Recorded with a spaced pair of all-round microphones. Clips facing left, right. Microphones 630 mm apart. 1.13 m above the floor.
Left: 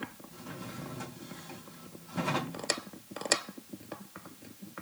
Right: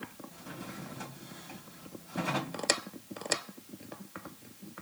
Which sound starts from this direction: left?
A drawer, at 0.3 s.